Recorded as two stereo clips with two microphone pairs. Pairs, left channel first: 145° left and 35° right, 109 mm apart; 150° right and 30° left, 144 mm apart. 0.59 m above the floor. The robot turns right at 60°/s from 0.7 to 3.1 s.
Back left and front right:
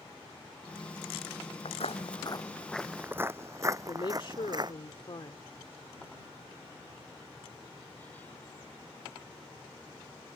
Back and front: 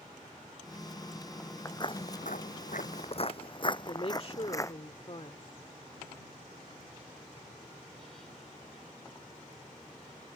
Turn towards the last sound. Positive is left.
turn(degrees=175)